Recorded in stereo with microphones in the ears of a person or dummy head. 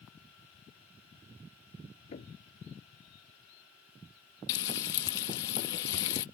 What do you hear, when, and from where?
2.1 s knocking: 35° left (ahead or behind)
4.5 s frying: 35° left (ahead or behind)